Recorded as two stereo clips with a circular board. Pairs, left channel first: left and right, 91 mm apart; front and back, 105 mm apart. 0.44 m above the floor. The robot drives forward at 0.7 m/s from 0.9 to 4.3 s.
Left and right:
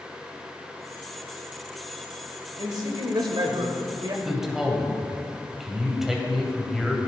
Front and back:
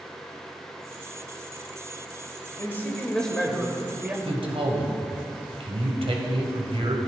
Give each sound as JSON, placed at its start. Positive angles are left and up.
{"t": 2.6, "sound": "a man speaking", "azimuth_deg": -65, "distance_m": 1.7}
{"t": 4.2, "sound": "a man speaking", "azimuth_deg": -175, "distance_m": 2.0}